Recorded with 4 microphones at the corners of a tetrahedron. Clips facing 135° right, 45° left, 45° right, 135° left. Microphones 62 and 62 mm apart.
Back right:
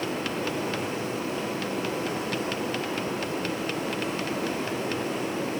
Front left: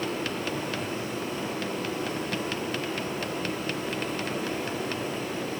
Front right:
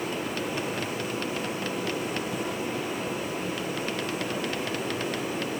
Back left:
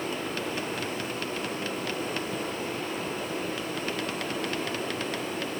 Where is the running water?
125° right, 7 m.